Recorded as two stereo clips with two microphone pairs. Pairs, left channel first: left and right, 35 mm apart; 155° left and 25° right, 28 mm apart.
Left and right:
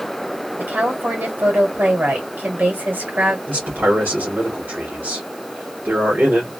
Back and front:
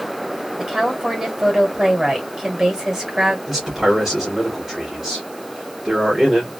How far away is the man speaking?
About 1.8 m.